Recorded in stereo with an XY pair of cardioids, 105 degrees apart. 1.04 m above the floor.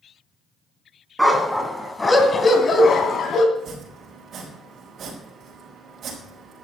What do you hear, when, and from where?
1.2 s a dog barking: 10° right, 3 m; by 3.5 s 60° left, 3 m
3.5 s chopping: 60° right, 5 m